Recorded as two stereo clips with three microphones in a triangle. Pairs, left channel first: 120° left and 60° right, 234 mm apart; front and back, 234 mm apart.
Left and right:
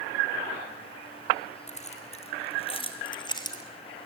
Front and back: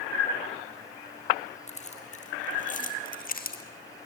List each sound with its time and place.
1.7 s keys jangling: 60° left, 3 m; by 3.6 s 45° left, 2.5 m